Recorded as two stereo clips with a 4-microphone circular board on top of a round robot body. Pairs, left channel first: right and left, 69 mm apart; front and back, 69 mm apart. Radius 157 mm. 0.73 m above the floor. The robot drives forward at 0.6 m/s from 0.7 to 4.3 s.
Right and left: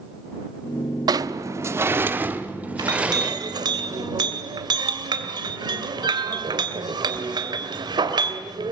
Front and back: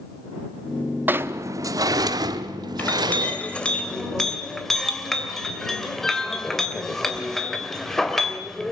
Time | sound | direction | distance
1.1 | a sliding door | 115° left | 0.5 m
2.8 | a clink | 65° left | 2.5 m